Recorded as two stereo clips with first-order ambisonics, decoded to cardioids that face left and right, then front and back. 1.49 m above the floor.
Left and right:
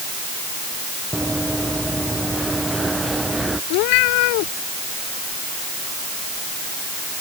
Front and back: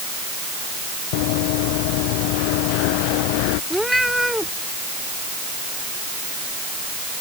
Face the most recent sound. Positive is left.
turn(degrees=90)